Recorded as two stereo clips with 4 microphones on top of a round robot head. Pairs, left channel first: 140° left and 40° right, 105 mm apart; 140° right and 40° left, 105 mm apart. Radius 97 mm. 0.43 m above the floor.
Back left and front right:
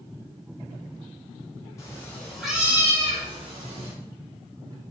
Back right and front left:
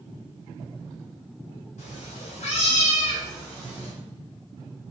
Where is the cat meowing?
155° right, 0.7 m; by 3.9 s 60° right, 0.8 m.